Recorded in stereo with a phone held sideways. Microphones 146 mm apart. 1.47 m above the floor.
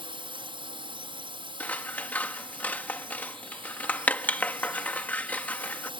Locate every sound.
0.0 s a drone: 40° right (ahead or behind)
1.6 s scissors: 10° left (ahead or behind)